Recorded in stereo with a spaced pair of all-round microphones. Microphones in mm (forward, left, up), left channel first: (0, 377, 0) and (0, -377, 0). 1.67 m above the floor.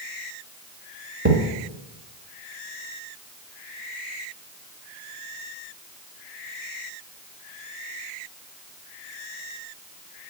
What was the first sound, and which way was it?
A thud, 15° right (ahead or behind).